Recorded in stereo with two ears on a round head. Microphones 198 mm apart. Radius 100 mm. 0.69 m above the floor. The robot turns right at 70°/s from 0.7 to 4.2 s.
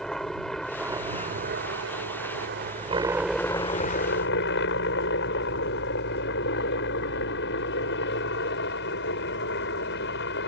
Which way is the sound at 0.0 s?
Straight behind.